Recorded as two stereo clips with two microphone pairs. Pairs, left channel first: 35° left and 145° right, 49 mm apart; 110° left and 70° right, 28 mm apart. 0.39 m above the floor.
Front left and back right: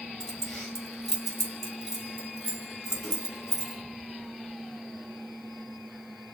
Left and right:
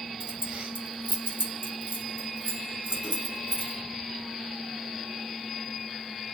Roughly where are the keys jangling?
Ahead right.